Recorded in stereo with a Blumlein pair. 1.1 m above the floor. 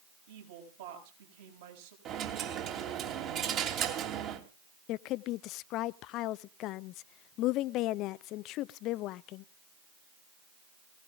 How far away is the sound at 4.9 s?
About 0.6 m.